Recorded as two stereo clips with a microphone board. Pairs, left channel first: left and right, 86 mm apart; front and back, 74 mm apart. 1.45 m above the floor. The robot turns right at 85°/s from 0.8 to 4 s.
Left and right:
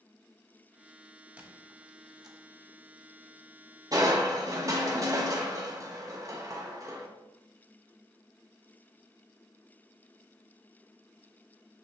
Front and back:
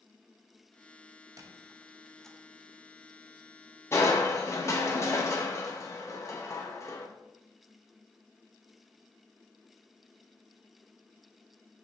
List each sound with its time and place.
1.4 s a squeak: 160° right, 0.8 m; by 2.4 s 70° right, 0.8 m
3.9 s crushing: 55° right, 1.0 m; by 7.1 s 45° right, 1.0 m